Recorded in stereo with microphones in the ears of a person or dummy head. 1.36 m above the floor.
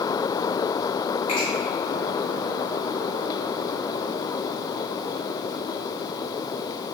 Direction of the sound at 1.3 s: 45° left (ahead or behind).